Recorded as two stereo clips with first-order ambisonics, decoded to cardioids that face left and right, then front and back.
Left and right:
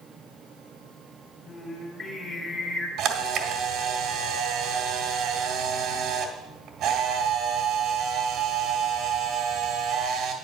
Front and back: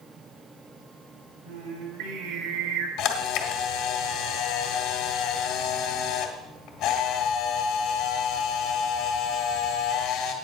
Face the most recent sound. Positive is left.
turn(degrees=-45)